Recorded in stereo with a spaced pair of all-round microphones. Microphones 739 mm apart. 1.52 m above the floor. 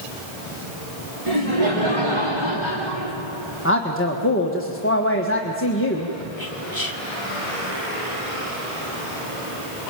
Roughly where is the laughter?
Right.